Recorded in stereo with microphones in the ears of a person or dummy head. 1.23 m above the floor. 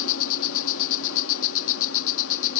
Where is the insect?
70° left (ahead or behind).